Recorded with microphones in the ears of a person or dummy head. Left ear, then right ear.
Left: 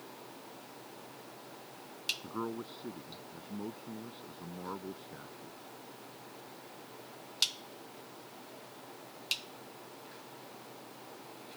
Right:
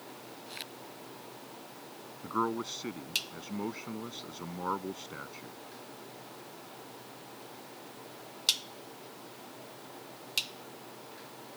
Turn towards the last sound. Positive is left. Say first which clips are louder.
# right 8 dB
turn(degrees=-65)  # may be behind; listen again after turning